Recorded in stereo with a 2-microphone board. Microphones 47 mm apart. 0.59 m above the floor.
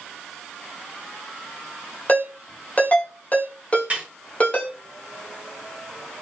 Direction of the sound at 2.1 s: 35° left (ahead or behind).